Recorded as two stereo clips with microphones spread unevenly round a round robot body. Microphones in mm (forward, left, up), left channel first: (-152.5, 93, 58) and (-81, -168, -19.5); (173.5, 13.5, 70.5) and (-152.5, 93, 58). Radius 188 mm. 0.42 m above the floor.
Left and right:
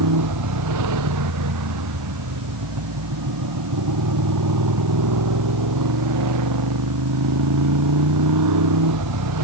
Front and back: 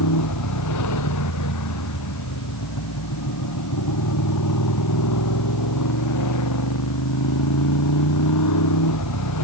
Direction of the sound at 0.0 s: 55° right.